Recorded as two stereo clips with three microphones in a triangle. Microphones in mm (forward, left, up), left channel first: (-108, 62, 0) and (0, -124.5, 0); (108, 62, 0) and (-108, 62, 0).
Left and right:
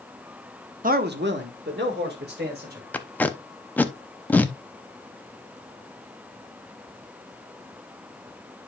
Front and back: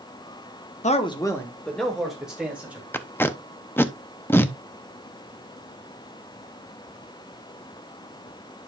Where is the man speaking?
35° right, 0.9 m; by 2.8 s 95° right, 3.5 m.